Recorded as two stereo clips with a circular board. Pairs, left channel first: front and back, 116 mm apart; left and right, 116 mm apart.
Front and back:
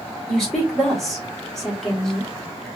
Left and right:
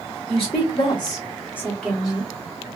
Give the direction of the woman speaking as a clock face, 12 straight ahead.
9 o'clock.